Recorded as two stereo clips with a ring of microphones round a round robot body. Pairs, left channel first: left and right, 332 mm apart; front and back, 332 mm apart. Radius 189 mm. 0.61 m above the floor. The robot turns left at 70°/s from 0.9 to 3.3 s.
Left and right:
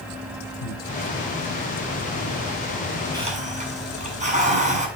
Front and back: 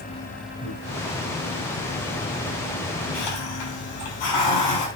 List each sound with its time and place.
0.6 s breathing: 85° left, 5 m
3.1 s a hiss: 10° right, 7 m; by 4.9 s 20° right, 7 m